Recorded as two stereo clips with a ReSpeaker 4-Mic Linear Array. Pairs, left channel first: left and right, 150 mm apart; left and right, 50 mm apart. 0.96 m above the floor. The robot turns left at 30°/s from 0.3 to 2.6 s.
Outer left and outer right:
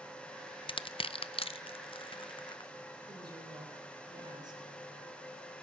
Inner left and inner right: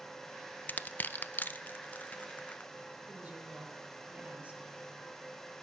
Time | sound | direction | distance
0.7 | crushing | 35° left (ahead or behind) | 0.6 m
3.1 | a woman speaking | 30° right (ahead or behind) | 3.5 m